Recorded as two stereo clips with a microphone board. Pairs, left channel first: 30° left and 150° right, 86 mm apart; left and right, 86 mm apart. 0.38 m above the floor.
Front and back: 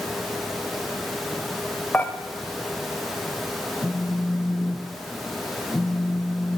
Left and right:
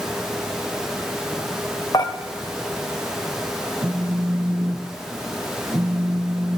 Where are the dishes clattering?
95° left, 0.9 m.